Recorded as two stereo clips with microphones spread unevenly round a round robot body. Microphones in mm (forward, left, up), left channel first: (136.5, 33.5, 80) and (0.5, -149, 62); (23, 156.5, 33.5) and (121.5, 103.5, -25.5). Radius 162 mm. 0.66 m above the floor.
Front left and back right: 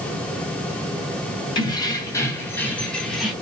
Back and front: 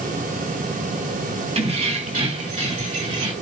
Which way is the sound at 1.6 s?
20° right.